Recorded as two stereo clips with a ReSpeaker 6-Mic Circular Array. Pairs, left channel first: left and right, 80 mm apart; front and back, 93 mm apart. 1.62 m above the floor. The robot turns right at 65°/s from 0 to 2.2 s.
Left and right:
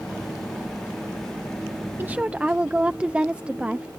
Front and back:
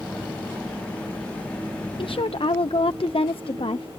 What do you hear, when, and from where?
2.0 s a woman speaking: 30° right; by 3.9 s 15° right